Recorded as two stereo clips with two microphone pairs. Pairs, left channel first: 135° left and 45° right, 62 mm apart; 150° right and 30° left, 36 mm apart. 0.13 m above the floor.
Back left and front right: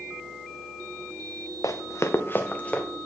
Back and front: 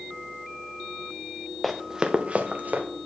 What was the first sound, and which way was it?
Running footsteps, 125° left.